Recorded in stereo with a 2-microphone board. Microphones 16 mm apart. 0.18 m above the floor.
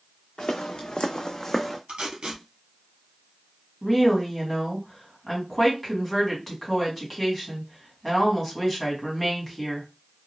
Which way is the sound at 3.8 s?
Centre (ahead or behind).